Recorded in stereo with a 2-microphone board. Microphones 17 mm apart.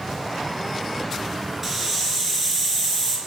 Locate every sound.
1.6 s a hiss: 15° right (ahead or behind), 3 m